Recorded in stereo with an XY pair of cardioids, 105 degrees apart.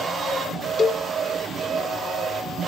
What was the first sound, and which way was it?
A cowbell, 45° left.